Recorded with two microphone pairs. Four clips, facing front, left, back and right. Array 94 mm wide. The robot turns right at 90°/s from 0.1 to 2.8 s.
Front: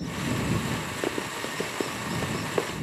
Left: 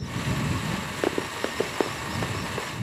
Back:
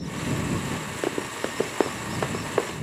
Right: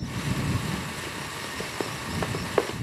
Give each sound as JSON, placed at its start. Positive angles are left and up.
{"t": 1.0, "sound": "running footsteps", "azimuth_deg": 85}